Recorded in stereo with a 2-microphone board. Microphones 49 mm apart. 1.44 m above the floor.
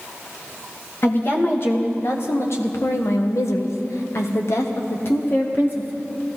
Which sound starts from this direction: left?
A woman speaking, at 1.0 s.